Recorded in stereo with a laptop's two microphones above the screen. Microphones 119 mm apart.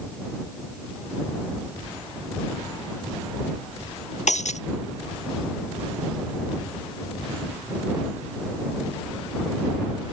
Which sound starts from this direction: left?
Breaking glass, at 4.3 s.